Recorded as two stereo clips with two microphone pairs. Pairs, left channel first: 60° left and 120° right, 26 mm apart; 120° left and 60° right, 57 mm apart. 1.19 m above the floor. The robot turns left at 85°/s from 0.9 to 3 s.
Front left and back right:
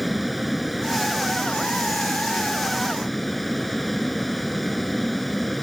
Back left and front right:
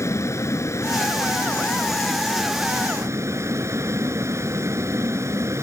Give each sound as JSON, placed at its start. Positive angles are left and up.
{"t": 0.0, "sound": "a vehicle", "azimuth_deg": 155}